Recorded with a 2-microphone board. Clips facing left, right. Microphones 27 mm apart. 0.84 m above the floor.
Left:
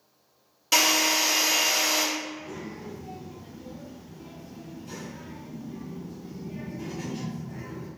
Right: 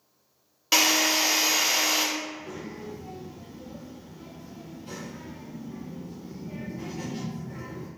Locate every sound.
0.7 s a drill: 15° right (ahead or behind), 0.9 m
2.2 s a child speaking: 60° right (ahead or behind), 1.2 m